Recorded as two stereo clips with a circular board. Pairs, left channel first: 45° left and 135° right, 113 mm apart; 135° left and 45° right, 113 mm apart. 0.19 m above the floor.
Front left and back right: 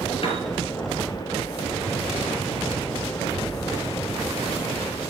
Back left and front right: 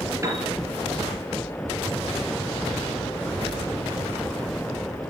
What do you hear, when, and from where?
0.2 s a piano: 15° left, 3 m